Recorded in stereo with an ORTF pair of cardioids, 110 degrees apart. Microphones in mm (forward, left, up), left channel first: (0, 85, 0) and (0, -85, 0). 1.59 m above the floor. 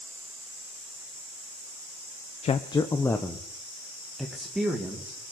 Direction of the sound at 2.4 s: 40° left.